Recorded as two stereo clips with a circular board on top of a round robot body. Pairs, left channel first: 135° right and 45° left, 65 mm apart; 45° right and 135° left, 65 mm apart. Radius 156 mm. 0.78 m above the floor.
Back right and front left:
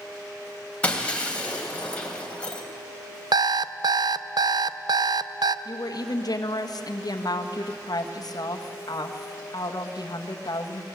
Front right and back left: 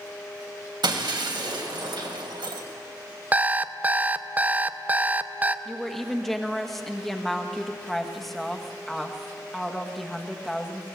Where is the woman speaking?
135° right, 1.5 m.